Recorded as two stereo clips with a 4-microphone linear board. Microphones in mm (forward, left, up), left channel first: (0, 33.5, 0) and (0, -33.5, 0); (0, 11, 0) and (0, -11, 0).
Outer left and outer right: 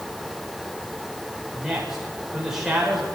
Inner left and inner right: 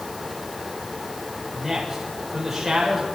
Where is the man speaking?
10° right (ahead or behind), 6 m.